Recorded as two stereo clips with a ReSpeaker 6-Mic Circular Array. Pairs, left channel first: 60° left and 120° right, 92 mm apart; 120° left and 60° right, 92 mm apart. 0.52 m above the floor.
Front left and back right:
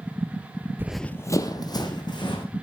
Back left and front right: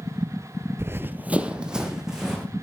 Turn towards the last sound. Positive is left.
turn(degrees=25)